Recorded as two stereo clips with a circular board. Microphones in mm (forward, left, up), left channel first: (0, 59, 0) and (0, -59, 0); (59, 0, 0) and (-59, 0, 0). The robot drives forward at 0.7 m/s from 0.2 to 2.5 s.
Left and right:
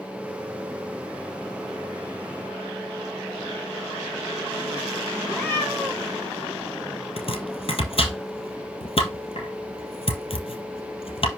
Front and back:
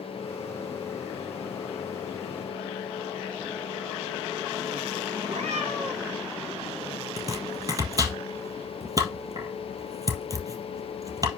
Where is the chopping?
125° left, 1.8 m.